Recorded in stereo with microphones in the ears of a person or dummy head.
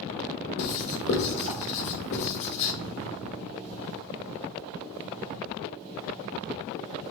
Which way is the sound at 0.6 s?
70° left (ahead or behind).